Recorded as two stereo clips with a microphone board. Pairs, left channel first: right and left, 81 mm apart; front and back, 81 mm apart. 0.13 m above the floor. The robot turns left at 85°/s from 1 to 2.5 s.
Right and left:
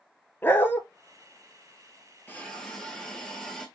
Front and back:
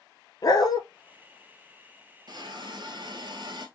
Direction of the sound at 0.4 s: 30° right.